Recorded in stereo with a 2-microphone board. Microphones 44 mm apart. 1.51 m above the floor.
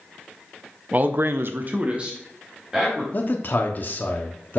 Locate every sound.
0.9 s a man speaking: 35° right (ahead or behind), 0.8 m; by 3.0 s 15° right (ahead or behind), 2.5 m
3.1 s a man speaking: 45° left (ahead or behind), 0.9 m